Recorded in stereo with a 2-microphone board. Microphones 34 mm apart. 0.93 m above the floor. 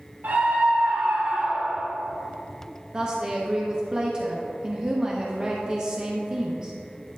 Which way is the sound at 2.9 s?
20° right (ahead or behind).